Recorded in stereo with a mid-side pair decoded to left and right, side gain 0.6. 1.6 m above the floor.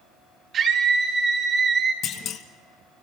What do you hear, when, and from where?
0.5 s a scream: 50° right, 7.5 m
2.0 s a clunk: 55° left, 1.7 m